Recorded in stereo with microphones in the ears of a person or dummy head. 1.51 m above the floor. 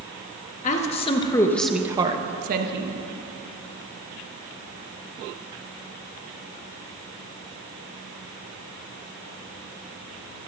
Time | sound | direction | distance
0.6 | a woman speaking | 40° left (ahead or behind) | 1.5 m